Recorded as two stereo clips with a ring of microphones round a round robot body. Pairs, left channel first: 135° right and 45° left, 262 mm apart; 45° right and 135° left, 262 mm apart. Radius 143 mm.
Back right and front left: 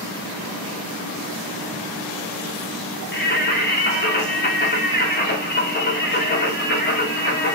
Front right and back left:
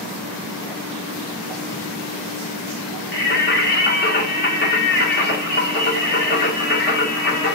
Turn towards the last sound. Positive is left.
turn(degrees=-90)